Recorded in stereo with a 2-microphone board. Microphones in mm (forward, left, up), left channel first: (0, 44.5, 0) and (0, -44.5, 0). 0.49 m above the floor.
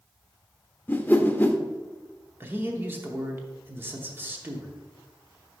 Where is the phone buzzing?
I don't hear a phone buzzing.